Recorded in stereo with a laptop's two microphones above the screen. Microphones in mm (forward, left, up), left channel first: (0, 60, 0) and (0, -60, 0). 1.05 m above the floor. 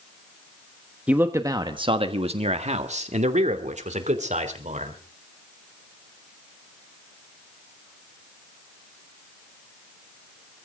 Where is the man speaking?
10° right (ahead or behind), 1.1 m; by 5.0 s 85° right, 3.5 m.